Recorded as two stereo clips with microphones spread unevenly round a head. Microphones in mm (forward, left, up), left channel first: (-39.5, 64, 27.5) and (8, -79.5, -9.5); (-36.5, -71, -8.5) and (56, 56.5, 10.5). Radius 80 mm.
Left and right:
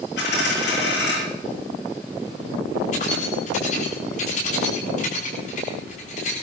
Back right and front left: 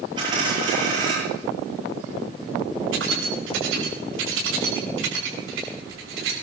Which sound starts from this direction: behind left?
A dropped coin, at 0.2 s.